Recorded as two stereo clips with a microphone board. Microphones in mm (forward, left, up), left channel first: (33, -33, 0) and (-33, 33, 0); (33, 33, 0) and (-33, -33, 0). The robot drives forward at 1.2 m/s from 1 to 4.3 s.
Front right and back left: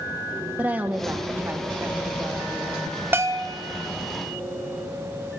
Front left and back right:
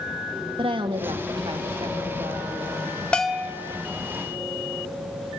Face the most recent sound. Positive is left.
turn(degrees=170)